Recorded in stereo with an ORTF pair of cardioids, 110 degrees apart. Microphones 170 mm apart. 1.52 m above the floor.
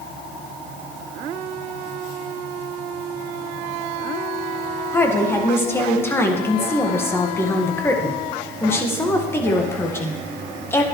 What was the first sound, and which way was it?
A woman speaking, 15° left.